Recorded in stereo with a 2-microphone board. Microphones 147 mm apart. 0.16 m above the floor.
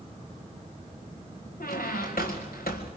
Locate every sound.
1.6 s a squeak: 80° left, 1.9 m